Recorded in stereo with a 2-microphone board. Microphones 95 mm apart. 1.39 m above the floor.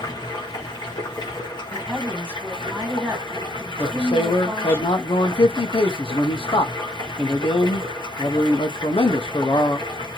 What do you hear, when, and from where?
0.0 s running water: 55° left (ahead or behind), 1.2 m
1.7 s a woman speaking: 20° right (ahead or behind), 1.7 m
3.8 s a man speaking: 65° left (ahead or behind), 0.7 m